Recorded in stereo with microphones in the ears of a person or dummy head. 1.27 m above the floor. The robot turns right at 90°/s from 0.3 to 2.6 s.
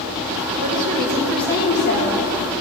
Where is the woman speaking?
55° right, 2 m; by 2.2 s 90° left, 2 m.